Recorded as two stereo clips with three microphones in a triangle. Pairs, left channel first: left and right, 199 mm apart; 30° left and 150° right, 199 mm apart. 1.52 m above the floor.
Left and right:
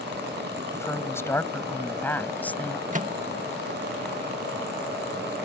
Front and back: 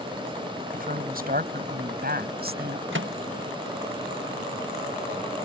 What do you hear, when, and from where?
0.7 s a woman speaking: 165° left; by 2.8 s 175° left
2.9 s a microwave: 140° right